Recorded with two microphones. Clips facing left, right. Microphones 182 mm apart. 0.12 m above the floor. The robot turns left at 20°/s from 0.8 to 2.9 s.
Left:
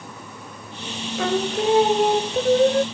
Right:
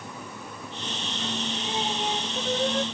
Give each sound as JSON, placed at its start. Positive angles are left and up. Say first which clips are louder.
{"t": 1.2, "sound": "singing", "louder": "left 13 dB", "azimuth_deg": 70}